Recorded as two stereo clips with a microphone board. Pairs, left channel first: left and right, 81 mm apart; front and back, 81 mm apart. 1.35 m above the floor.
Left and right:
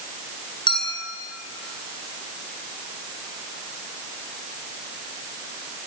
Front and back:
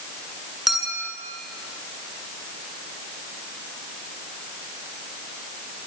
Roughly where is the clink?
Left.